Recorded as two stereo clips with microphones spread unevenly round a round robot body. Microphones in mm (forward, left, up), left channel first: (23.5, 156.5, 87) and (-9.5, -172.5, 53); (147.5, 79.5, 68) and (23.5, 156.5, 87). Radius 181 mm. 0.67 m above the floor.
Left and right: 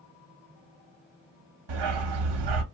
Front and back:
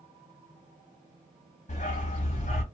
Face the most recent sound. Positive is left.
turn(degrees=-85)